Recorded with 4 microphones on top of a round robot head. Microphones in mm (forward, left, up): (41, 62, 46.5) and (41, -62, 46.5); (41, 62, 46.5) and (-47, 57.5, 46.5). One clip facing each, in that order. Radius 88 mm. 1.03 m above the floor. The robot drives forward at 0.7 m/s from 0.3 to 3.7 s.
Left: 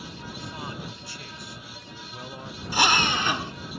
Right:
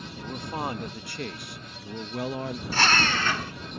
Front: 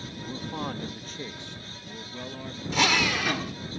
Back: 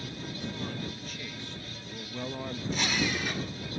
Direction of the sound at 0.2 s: 45° right.